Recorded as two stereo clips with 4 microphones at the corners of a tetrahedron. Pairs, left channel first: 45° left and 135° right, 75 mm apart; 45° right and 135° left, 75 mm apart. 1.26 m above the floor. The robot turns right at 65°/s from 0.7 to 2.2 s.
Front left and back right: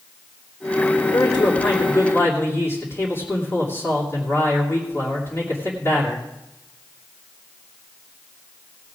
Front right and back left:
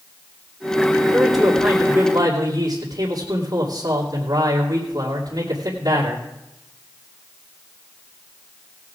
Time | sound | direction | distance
1.1 | a man speaking | 30° left | 3 m